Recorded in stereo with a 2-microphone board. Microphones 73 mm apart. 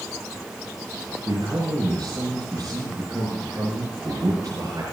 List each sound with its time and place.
1.3 s a man speaking: 50° right (ahead or behind), 7.5 m